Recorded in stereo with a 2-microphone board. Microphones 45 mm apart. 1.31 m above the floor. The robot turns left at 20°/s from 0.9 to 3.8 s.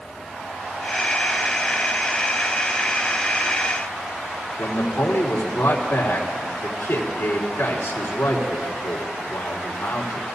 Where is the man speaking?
85° left, 3 m.